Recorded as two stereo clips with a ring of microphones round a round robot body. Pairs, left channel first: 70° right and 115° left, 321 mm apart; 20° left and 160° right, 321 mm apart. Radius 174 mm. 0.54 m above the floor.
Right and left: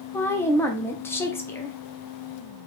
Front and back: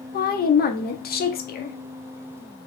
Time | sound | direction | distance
0.1 | a woman speaking | 10° left | 0.7 m